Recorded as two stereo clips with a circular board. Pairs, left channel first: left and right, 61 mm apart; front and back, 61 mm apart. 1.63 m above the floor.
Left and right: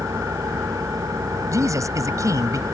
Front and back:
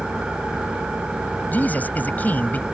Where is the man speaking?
65° right.